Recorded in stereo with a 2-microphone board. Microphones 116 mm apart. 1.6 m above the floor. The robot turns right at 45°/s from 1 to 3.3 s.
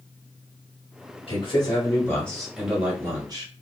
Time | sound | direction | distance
1.3 | a man speaking | 125° left | 2 m